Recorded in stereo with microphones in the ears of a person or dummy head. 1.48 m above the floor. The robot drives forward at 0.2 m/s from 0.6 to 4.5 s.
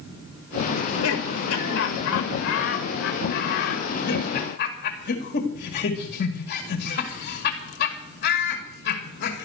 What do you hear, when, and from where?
0.8 s laughter: 75° left (ahead or behind), 1.5 m; by 9.4 s 55° left (ahead or behind), 1.8 m